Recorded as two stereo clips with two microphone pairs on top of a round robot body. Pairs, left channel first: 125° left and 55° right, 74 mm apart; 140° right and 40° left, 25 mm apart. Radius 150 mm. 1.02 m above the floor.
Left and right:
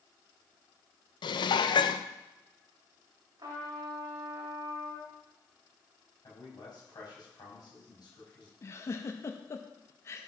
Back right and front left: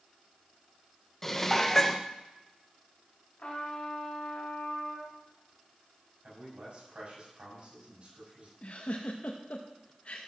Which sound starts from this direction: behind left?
Dishes clattering, at 1.2 s.